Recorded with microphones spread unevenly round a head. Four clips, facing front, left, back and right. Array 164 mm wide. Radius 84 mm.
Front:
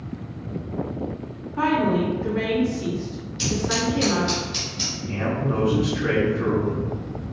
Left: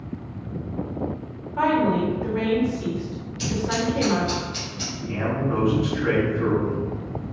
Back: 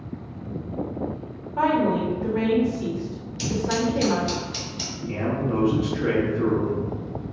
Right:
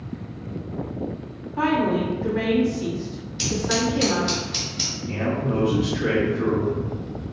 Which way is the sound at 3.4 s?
125° right.